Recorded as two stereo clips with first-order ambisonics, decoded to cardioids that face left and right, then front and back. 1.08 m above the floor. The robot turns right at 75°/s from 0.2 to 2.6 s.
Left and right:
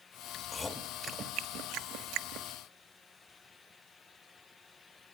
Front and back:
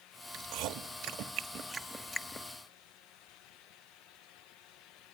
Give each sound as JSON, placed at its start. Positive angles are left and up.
{"t": 0.3, "sound": "chewing", "azimuth_deg": 150, "distance_m": 1.3}